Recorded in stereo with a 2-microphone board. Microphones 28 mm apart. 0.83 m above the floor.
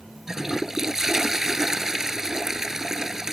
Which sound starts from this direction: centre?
A toilet flushing, at 0.3 s.